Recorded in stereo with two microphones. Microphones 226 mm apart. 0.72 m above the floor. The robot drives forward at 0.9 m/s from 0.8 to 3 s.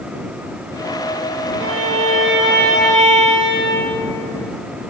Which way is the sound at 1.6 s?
65° right (ahead or behind).